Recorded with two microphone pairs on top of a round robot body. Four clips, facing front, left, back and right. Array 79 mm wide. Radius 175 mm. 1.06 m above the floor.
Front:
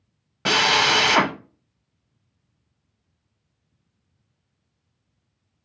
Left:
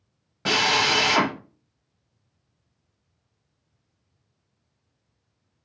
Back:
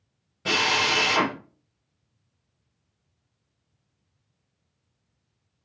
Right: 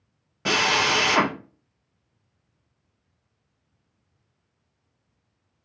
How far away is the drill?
About 1.0 m.